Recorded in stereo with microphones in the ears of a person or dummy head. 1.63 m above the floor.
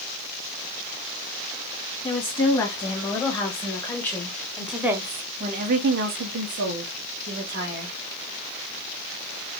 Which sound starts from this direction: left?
A woman speaking, at 2.0 s.